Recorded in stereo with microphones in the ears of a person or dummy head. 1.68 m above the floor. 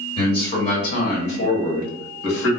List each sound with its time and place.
0.2 s a man speaking: 20° left (ahead or behind), 1.3 m; by 2.5 s 80° left, 2 m